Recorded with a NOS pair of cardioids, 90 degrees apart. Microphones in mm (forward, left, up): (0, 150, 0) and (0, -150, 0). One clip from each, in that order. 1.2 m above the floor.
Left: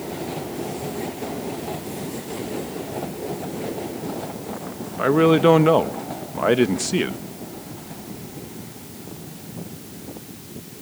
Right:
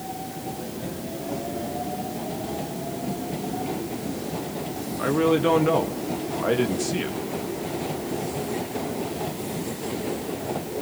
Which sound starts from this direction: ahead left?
A man speaking, at 5.0 s.